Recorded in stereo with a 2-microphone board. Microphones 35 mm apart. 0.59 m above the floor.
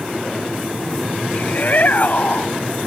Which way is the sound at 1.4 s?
50° left (ahead or behind).